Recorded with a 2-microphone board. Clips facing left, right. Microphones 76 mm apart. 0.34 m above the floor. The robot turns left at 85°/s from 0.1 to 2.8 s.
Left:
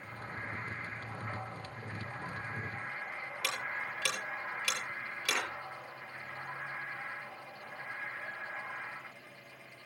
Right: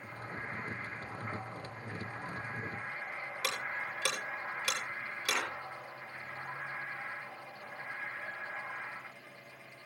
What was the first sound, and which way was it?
Ticking, 25° right (ahead or behind).